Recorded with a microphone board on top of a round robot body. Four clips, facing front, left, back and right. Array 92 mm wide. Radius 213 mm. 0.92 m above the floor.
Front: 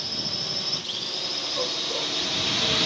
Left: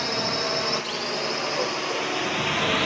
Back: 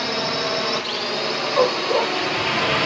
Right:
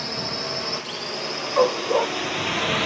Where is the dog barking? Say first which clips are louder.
Right 8 dB, back 14 dB; 140° right.